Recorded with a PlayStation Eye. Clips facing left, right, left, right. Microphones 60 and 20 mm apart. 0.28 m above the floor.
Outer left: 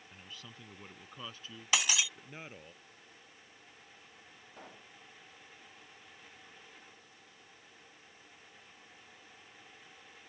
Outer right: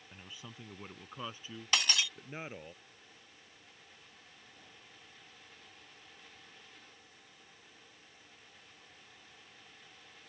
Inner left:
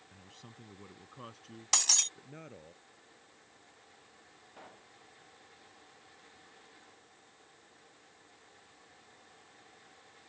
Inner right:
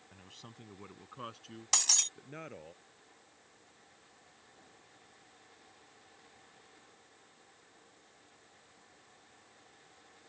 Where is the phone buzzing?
I don't hear a phone buzzing.